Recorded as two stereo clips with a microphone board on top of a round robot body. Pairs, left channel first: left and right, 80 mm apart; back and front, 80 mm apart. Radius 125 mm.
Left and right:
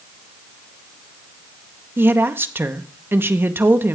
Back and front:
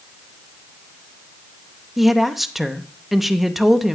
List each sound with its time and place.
2.0 s a woman speaking: 85° right, 0.9 m